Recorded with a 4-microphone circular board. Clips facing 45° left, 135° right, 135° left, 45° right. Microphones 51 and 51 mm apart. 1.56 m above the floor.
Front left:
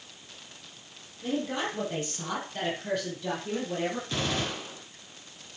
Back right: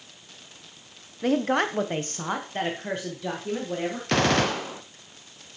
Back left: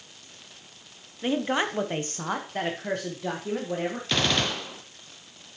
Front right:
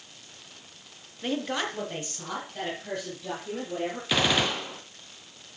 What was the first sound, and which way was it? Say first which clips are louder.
A woman speaking: back right 8 dB, back left 4 dB; 145° right.